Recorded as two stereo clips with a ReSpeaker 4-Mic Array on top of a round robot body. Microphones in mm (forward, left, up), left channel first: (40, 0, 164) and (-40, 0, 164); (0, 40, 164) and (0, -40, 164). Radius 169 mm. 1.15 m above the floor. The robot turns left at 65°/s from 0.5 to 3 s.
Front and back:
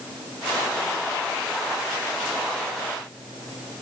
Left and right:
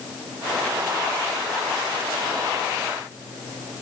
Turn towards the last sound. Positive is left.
No sound to turn to.